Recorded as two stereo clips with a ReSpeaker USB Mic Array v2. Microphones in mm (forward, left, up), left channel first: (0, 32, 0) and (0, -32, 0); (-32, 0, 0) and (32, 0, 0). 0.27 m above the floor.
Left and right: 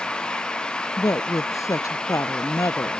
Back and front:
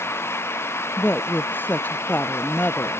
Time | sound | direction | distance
1.0 | a woman speaking | 125° left | ?